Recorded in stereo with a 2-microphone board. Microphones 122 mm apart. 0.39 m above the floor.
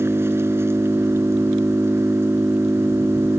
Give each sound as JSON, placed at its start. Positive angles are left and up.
{"t": 0.0, "sound": "an engine running", "side_deg": -20}